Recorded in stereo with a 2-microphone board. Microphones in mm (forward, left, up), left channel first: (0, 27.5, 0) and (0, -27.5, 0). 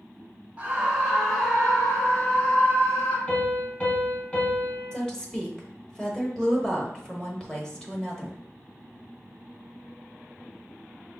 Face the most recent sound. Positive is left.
turn(degrees=15)  # may be behind; listen again after turning